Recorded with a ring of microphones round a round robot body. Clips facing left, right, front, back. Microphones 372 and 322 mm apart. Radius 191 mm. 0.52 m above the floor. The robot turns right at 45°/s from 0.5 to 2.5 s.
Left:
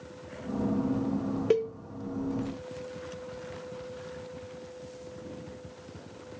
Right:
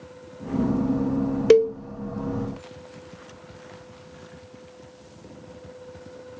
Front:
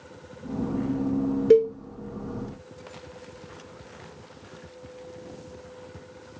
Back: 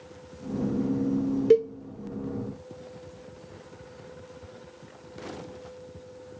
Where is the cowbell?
100° right, 0.6 m; by 1.7 s 85° right, 0.6 m.